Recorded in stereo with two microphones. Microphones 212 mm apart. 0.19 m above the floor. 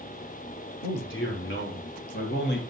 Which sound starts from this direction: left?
A man speaking, at 0.8 s.